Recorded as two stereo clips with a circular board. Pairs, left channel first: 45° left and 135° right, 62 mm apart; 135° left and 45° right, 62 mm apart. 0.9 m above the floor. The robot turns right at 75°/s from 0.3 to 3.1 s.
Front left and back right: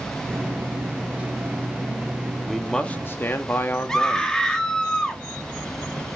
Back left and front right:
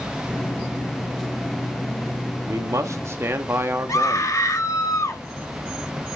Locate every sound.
2.5 s a man speaking: 55° right, 1.7 m; by 4.4 s 5° right, 1.7 m
3.9 s a scream: 120° left, 2 m